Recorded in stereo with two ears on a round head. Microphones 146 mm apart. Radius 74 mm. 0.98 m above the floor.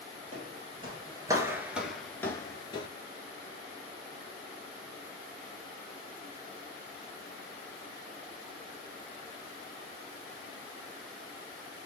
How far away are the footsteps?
About 1.6 m.